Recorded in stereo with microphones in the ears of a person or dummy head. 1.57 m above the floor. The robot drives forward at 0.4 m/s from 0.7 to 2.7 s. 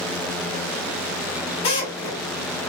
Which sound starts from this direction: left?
A drill, at 1.6 s.